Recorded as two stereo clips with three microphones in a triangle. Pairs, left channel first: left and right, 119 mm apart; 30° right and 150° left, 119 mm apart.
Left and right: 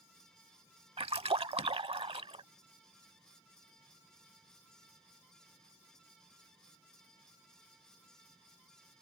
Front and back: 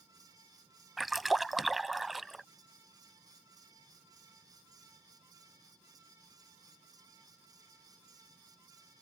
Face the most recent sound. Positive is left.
turn(degrees=-120)